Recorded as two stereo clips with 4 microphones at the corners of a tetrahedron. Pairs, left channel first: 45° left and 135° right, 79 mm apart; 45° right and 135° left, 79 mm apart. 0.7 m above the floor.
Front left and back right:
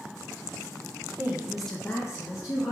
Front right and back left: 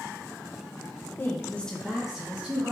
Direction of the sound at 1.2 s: 95° right.